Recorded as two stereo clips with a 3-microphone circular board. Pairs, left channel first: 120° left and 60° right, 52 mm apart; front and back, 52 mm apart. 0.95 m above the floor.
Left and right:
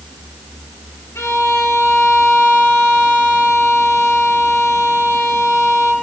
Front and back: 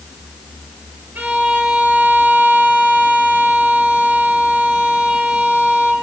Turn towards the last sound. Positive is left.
turn(degrees=130)